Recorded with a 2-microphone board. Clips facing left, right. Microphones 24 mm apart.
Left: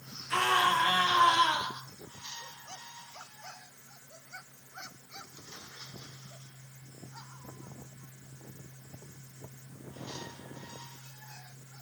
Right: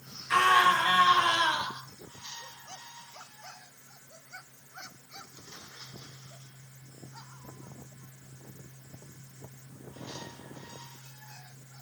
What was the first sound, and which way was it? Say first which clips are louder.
A scream: right 4 dB; 75° right (ahead or behind).